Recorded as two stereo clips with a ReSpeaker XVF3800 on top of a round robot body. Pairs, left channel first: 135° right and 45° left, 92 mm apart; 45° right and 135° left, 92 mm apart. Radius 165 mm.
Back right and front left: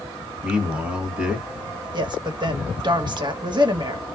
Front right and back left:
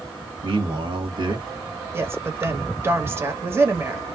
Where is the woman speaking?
75° left, 1.2 m.